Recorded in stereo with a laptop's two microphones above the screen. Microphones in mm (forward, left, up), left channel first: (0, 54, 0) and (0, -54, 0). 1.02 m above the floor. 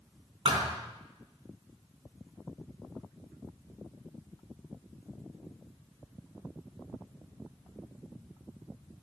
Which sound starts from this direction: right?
A thud, at 0.5 s.